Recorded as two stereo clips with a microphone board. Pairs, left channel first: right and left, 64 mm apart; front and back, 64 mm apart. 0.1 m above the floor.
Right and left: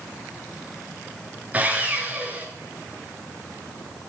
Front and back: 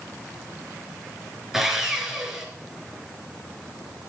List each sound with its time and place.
1.5 s sawing: 105° left, 1.9 m